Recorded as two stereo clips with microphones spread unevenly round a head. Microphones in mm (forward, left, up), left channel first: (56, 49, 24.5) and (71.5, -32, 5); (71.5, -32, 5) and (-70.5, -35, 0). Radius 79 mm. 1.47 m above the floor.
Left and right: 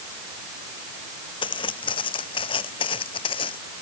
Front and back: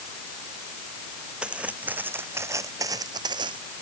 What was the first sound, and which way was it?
Footsteps, 95° left.